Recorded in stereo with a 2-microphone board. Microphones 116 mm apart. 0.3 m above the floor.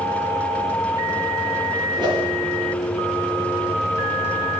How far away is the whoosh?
About 3 m.